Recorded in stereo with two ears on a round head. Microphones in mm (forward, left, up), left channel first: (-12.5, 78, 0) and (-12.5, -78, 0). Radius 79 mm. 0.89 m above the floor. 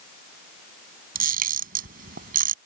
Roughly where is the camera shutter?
Right.